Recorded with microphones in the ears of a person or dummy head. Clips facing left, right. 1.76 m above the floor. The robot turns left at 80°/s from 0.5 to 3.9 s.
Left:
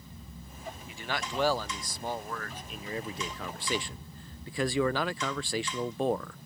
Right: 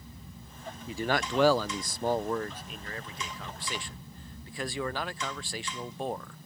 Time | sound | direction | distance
0.9 | a man speaking | 30° right | ?